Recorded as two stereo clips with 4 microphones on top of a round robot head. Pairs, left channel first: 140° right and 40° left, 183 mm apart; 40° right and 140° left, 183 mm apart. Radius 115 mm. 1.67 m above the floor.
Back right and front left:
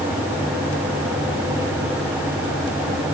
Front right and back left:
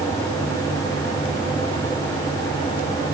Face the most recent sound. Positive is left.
No sound to turn to.